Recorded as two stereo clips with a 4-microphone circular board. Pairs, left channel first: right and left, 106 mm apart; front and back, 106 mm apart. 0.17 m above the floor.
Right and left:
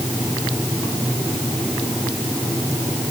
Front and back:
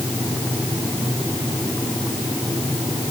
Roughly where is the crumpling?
No crumpling in this recording.